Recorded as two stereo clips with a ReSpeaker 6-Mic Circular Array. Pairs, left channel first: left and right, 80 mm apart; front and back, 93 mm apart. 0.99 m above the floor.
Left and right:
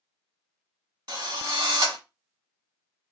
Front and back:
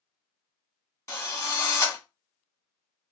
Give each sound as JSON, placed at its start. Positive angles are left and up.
{"t": 1.1, "sound": "a drill", "azimuth_deg": -60, "distance_m": 1.4}